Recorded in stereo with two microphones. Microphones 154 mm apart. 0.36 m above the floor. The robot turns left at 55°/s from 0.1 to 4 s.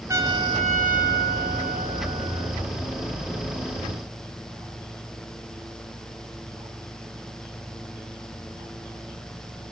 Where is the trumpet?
20° right, 1.3 m; by 2.6 s 155° right, 1.3 m.